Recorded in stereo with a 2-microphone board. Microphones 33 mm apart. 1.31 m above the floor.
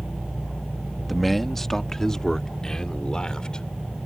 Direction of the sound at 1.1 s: Centre (ahead or behind).